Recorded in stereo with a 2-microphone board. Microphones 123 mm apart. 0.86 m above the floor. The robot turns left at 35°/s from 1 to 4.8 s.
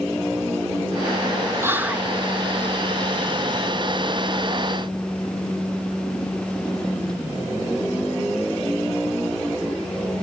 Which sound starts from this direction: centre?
Whispering, at 1.6 s.